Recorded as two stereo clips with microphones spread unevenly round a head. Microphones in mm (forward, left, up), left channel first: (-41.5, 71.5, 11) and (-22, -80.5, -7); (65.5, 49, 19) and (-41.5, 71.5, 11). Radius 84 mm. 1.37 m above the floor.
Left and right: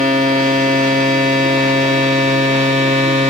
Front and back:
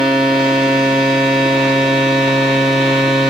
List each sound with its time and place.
0.0 s a machine running: 125° right, 2.5 m